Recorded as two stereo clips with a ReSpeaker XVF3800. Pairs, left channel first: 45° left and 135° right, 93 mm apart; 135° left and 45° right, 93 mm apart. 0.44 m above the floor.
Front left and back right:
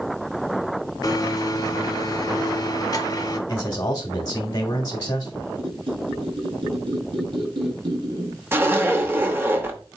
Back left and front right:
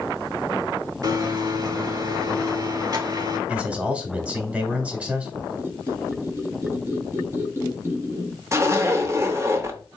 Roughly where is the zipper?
Right.